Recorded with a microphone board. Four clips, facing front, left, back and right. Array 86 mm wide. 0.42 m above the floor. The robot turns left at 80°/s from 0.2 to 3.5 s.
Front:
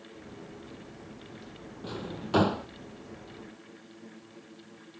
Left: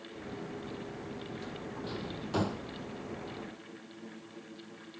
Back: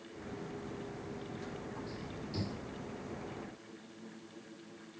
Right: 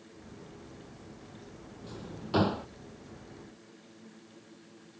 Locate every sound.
1.8 s a drawer: 25° left; by 2.7 s 40° right